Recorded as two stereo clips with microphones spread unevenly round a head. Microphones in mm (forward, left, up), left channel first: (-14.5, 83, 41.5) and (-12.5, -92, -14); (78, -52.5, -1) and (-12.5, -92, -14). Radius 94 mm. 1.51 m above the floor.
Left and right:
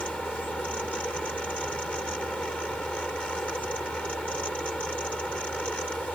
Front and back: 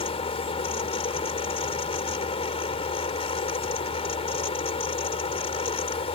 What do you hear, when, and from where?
0.0 s a fan: 5° left